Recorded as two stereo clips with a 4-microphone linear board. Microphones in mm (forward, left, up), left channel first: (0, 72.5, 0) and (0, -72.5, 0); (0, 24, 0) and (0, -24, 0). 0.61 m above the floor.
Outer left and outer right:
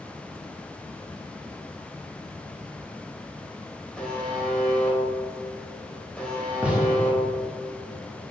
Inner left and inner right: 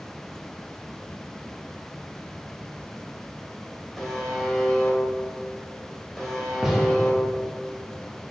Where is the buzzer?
5° left (ahead or behind), 1.8 m.